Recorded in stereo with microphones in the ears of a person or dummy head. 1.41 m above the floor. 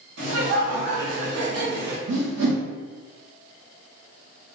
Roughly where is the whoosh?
Right.